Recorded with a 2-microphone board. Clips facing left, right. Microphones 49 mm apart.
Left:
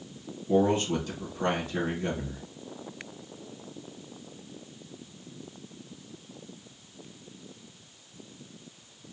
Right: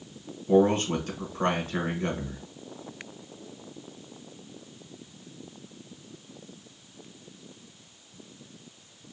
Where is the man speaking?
50° right (ahead or behind), 1.3 m.